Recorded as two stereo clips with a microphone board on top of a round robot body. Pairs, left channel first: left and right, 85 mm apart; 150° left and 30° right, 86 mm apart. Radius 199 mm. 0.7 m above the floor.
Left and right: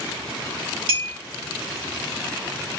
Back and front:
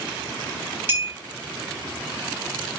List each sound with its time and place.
0.9 s a clink: 95° right, 1.3 m